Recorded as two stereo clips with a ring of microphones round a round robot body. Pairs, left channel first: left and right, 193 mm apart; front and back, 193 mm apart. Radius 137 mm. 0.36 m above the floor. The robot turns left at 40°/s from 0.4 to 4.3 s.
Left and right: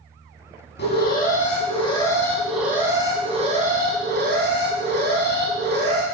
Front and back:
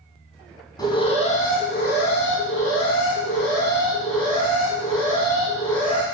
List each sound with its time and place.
0.8 s an alarm: 70° left, 3.5 m; by 6.0 s 70° right, 3.5 m